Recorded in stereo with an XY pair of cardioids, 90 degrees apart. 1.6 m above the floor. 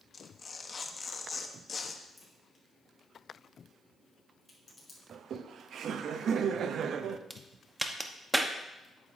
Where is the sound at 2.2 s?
25° left, 4 m.